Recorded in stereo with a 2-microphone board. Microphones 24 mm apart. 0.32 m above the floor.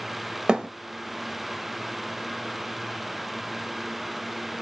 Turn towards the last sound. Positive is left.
turn(degrees=-45)  # may be behind; listen again after turning